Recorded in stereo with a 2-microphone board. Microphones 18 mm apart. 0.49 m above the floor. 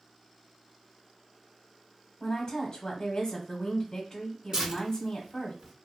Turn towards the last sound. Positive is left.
turn(degrees=-45)  # may be behind; listen again after turning